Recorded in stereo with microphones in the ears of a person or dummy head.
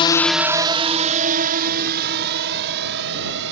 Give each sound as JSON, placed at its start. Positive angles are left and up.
{"t": 0.0, "sound": "a drone", "side_deg": 25}